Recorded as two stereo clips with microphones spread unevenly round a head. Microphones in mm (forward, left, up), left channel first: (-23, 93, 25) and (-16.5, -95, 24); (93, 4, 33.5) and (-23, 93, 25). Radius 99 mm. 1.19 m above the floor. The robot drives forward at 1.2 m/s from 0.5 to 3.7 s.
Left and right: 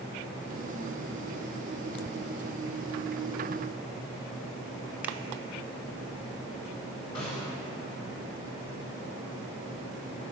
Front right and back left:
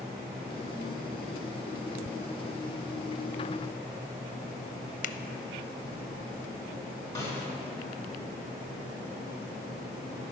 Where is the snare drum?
30° left, 3.5 m.